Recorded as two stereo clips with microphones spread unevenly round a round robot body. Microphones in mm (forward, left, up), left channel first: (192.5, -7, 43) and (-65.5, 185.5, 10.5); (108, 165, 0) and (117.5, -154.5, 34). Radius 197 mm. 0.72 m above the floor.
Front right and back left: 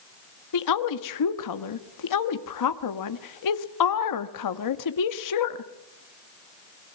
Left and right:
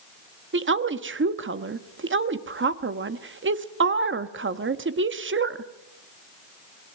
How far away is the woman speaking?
About 1.4 m.